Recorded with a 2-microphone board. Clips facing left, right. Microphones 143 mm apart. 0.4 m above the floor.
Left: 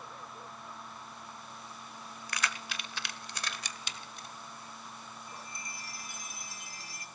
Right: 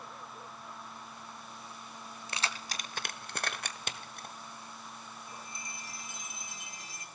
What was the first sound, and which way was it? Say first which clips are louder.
Keys jangling: left 1 dB; 25° right (ahead or behind).